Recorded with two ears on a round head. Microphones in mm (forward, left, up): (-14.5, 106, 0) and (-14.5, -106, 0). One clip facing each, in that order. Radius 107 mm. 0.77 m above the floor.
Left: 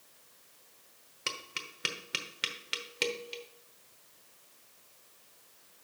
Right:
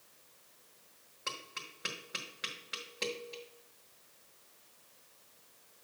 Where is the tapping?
40° left (ahead or behind), 1.0 m.